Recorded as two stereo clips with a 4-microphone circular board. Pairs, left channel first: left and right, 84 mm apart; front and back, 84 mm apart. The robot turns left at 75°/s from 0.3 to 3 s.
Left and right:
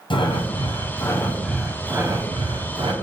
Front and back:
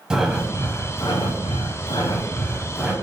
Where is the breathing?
100° left, 0.6 m; by 2.9 s 100° right, 0.6 m.